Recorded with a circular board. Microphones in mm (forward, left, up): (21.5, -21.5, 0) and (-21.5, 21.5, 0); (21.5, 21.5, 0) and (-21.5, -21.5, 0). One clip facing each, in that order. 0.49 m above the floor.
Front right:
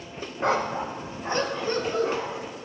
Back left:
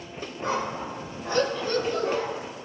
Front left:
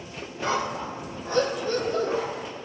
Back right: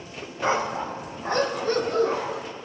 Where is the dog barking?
70° right, 0.8 m; by 2.4 s 115° right, 2 m.